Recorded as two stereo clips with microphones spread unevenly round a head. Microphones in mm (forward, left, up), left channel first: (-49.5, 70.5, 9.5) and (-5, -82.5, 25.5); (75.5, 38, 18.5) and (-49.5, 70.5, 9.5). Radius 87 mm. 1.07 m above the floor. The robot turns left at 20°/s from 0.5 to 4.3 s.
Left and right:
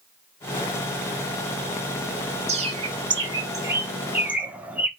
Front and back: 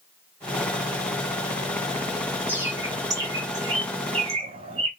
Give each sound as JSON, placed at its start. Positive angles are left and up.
{"t": 2.5, "sound": "a bird", "azimuth_deg": -120, "distance_m": 0.7}